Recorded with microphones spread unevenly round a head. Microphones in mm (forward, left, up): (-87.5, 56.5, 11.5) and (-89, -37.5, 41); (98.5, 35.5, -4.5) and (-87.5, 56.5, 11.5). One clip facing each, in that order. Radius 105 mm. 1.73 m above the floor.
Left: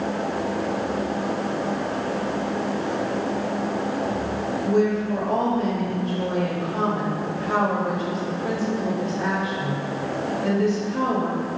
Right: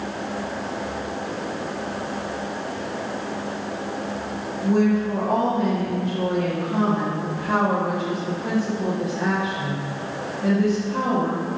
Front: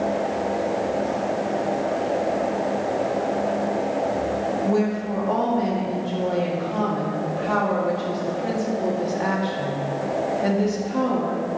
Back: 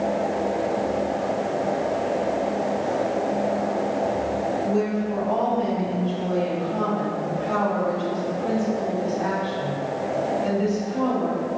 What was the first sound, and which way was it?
A woman speaking, 35° right.